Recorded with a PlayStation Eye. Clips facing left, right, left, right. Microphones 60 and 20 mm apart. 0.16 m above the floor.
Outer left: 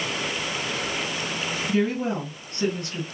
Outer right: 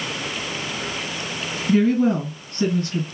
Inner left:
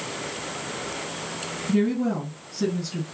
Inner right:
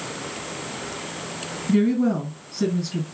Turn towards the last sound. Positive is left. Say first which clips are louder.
# outer right 8 dB, inner right 4 dB
turn(degrees=-40)  # may be behind; listen again after turning